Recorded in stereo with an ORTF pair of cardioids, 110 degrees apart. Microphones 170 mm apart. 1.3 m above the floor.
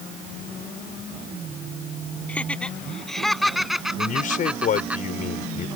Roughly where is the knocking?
I don't hear knocking.